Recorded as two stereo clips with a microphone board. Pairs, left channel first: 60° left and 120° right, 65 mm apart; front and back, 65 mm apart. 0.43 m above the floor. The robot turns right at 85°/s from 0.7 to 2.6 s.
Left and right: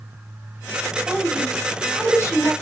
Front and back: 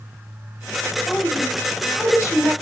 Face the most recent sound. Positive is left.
turn(degrees=60)